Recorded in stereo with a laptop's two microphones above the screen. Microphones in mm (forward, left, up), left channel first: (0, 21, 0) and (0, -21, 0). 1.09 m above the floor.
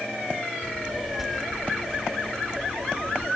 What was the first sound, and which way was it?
A child speaking, 5° right (ahead or behind).